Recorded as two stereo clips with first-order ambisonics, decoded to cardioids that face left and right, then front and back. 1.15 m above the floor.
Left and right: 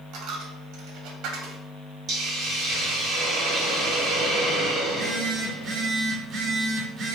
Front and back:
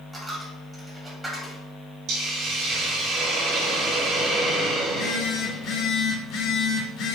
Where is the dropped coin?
100° right, 1.0 m.